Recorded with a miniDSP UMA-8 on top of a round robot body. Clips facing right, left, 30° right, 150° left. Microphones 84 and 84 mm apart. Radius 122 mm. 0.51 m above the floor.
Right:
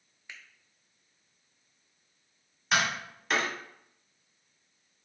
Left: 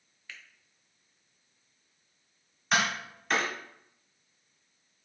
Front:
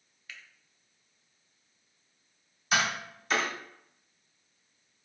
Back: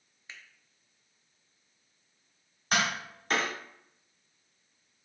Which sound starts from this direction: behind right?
A finger snap, at 0.3 s.